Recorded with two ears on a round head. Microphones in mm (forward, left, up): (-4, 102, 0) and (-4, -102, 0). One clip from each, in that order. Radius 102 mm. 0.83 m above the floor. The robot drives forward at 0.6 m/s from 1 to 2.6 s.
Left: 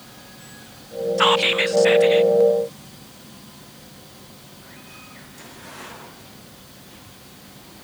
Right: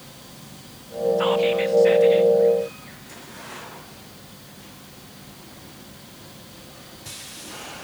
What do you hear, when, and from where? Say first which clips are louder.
1.2 s whispering: left 6 dB; 50° left (ahead or behind), 0.6 m; by 2.3 s 30° left (ahead or behind), 0.9 m